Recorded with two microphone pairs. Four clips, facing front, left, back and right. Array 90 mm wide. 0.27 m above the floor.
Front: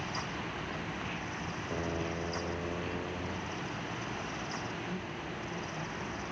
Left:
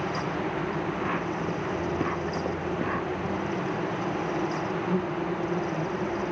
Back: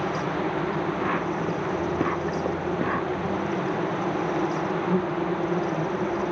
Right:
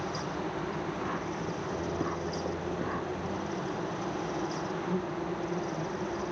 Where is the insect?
165° left.